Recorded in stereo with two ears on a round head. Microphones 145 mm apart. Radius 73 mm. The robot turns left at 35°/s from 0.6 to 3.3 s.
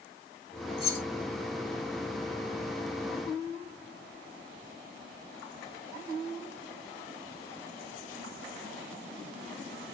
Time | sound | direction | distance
0.8 | keys jangling | 35° left (ahead or behind) | 2.5 m